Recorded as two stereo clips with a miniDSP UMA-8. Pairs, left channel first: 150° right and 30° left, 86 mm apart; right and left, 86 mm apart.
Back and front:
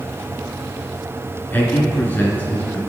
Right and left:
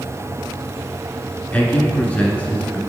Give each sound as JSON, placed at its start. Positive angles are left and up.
{"t": 1.5, "sound": "a man speaking", "azimuth_deg": -130, "distance_m": 1.1}